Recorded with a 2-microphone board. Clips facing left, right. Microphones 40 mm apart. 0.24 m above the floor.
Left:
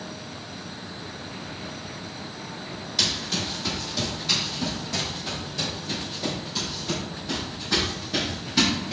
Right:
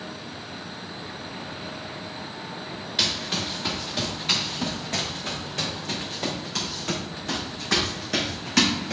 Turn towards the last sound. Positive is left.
turn(degrees=-75)  # may be behind; listen again after turning